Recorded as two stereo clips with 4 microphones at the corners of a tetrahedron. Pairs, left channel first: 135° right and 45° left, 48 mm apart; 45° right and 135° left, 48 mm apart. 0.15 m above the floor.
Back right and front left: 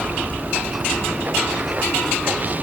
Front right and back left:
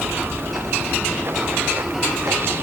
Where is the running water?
100° left.